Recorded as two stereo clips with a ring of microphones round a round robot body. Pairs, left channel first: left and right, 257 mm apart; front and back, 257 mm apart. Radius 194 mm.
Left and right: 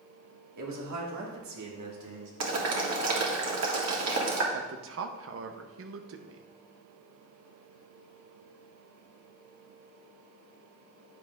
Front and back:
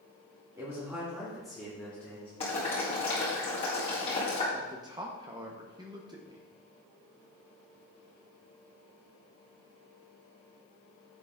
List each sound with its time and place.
0.6 s a man speaking: 100° right, 1.8 m; by 2.3 s 85° right, 3 m
2.4 s boiling: 70° right, 1.8 m
4.5 s a man speaking: 105° right, 0.7 m